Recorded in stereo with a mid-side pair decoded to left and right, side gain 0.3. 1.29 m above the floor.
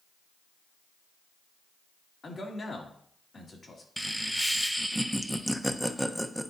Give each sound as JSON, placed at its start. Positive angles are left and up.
{"t": 2.2, "sound": "a man speaking", "azimuth_deg": 50, "distance_m": 2.0}
{"t": 4.0, "sound": "laughter", "azimuth_deg": 0, "distance_m": 1.0}